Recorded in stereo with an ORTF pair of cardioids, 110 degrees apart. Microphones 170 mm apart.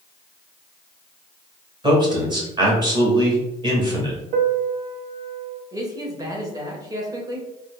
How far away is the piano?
About 0.5 m.